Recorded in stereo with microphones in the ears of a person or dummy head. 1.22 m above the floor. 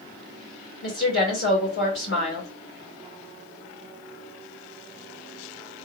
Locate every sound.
0.8 s a woman speaking: 60° left (ahead or behind), 1.9 m